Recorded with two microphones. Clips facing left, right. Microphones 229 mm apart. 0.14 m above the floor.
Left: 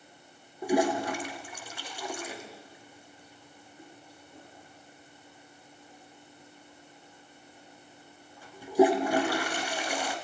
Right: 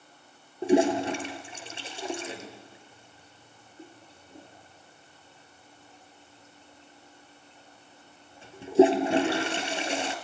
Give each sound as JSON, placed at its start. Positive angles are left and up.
{"t": 0.6, "sound": "a toilet flushing", "side_deg": -25, "distance_m": 1.9}